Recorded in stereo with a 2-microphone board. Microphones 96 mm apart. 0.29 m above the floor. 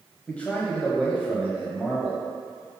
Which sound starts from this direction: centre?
A man speaking, at 0.3 s.